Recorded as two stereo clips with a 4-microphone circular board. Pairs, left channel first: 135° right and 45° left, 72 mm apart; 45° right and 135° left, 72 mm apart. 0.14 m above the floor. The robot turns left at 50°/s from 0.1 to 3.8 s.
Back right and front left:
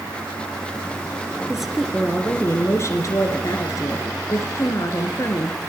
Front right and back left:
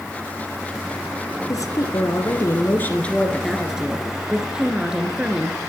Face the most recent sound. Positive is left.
turn(degrees=-150)